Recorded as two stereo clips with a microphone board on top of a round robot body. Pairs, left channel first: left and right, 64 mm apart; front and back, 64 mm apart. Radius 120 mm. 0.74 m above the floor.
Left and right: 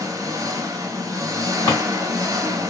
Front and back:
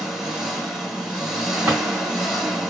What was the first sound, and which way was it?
An engine running, 95° right.